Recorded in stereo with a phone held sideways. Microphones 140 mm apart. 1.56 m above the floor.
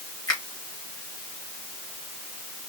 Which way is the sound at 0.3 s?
30° left (ahead or behind).